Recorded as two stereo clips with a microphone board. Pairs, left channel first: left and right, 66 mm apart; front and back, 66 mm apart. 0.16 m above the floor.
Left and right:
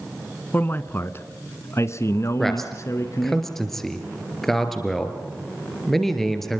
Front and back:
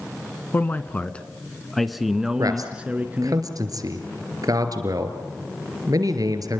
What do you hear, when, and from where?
0.5 s a man speaking: 45° left, 1.4 m; by 3.4 s 120° left, 1.7 m
2.4 s a man speaking: 175° left, 3 m